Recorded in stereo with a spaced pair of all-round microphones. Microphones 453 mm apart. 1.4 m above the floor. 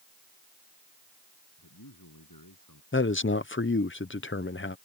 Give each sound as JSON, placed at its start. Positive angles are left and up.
{"t": 1.6, "sound": "a man speaking", "side_deg": 45}
{"t": 2.9, "sound": "a man speaking", "side_deg": 25}